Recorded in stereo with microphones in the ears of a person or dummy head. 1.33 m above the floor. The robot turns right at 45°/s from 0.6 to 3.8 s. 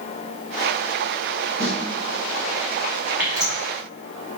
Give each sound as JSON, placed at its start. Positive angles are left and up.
{"t": 1.6, "sound": "a snare drum", "side_deg": 45, "distance_m": 1.5}
{"t": 3.2, "sound": "dripping", "side_deg": -10, "distance_m": 0.9}